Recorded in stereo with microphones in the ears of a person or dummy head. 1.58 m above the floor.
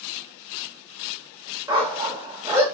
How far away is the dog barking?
About 1.3 m.